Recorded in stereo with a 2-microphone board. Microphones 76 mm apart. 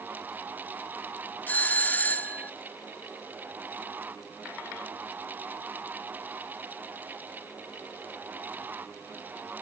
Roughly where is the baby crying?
I don't hear a baby crying.